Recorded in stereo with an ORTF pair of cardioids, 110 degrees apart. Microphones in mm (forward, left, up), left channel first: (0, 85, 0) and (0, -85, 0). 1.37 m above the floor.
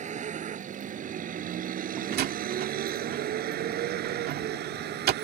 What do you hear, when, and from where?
0.0 s a vehicle: 45° right; by 5.2 s 75° right
2.1 s a door slam: 70° right